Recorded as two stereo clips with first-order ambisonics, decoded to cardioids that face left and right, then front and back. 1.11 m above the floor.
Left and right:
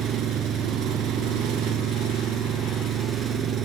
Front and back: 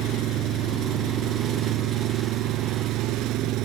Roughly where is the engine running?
Behind right.